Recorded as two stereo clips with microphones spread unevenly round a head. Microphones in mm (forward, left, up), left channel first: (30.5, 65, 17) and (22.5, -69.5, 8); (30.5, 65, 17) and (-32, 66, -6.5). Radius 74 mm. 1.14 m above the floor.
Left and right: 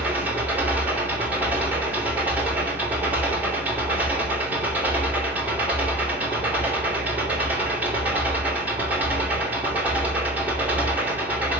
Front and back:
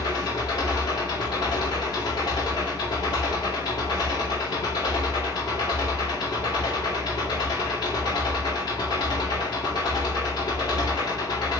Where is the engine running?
15° right, 3 m.